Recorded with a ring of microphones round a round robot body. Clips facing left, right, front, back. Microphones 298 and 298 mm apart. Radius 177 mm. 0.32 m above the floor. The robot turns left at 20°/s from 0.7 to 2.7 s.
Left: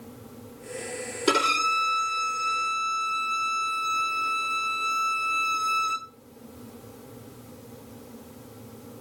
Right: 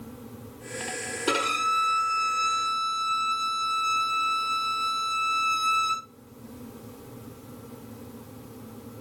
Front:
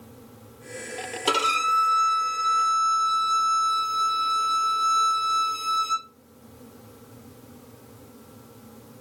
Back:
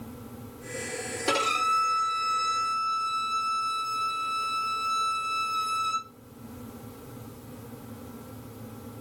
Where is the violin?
5° left, 2.5 m; by 6.1 s 25° right, 2.5 m.